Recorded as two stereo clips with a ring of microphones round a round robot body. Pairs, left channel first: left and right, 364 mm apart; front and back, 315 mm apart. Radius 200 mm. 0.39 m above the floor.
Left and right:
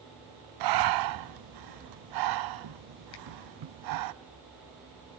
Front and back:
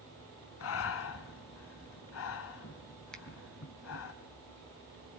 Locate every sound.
0.6 s breathing: 55° right, 0.6 m
3.1 s a finger snap: 90° left, 2.5 m